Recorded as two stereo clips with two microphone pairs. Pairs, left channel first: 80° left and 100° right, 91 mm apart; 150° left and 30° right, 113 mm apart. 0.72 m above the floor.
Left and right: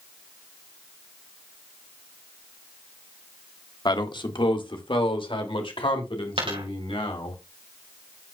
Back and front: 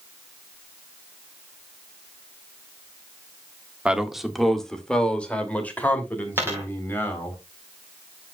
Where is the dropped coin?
95° right, 4.5 m.